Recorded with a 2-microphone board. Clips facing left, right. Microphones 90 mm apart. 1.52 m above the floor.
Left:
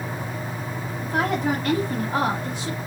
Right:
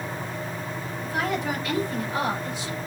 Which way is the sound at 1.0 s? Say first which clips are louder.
Left 4 dB; 55° left (ahead or behind).